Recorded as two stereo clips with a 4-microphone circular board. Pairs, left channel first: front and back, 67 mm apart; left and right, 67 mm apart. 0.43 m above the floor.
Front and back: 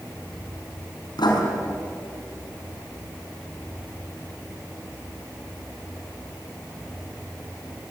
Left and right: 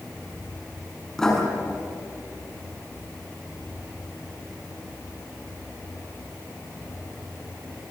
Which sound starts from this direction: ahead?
Writing, at 1.2 s.